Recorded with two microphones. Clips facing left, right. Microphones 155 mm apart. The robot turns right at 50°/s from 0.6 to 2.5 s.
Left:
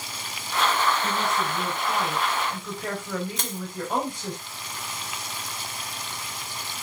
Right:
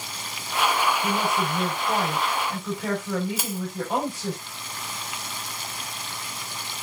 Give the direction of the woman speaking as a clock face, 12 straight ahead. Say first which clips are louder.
Right 2 dB; 3 o'clock.